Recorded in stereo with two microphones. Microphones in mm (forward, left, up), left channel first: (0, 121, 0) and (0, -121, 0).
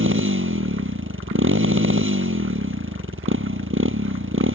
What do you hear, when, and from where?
0.0 s a motorcycle: 55° right (ahead or behind)